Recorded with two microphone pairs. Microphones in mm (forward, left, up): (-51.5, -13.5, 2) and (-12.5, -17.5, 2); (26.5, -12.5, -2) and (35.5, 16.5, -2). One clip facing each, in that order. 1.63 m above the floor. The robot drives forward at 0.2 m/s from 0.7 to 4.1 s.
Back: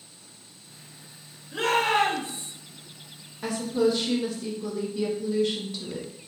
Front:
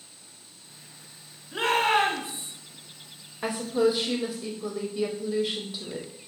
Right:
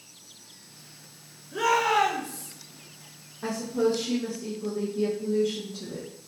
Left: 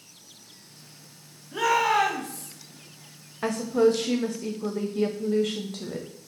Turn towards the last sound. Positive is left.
turn(degrees=75)